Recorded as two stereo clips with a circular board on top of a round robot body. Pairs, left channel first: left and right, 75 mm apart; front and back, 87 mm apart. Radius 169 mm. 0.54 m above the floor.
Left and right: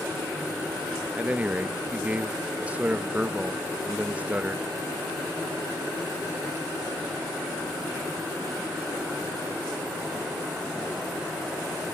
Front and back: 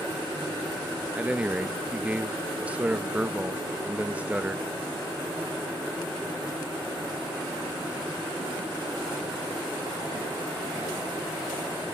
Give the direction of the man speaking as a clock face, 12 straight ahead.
4 o'clock.